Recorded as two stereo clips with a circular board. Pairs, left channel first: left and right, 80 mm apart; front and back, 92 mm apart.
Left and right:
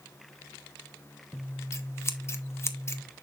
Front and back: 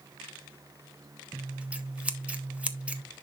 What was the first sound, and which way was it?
Scissors, 115° left.